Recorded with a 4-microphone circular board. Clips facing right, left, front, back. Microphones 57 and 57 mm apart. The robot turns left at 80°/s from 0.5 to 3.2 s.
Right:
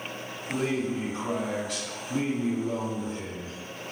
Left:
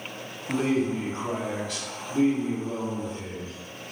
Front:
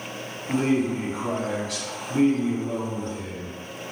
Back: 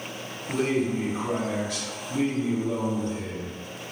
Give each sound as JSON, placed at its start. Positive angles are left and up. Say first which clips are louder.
{"t": 0.5, "sound": "a man speaking", "louder": "left 4 dB, front 2 dB", "azimuth_deg": 85, "distance_m": 0.6}